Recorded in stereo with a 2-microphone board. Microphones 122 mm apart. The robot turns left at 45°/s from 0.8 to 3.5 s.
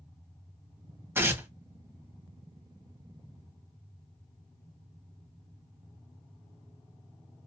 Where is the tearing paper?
20° right (ahead or behind), 0.8 m; by 1.5 s 15° right (ahead or behind), 0.8 m.